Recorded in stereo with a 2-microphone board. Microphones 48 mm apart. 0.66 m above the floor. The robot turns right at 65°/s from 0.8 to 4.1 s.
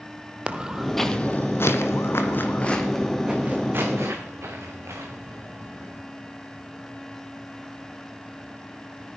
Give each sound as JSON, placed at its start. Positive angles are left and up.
{"t": 0.5, "sound": "footsteps", "side_deg": -25, "distance_m": 1.0}